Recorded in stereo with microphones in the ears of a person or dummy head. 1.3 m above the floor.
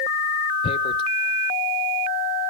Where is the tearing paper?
30° left (ahead or behind), 0.5 m.